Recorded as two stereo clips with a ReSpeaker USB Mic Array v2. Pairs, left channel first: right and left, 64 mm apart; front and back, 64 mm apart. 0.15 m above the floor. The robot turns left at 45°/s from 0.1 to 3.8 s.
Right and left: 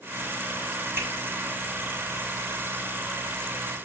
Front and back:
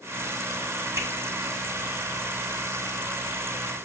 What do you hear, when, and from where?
1.0 s a finger snap: 140° left, 6 m; by 1.1 s 135° left, 6 m